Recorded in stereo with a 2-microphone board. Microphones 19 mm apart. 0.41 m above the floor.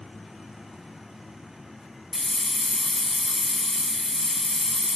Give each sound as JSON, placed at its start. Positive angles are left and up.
{"t": 2.1, "sound": "a hiss", "side_deg": 20, "distance_m": 0.7}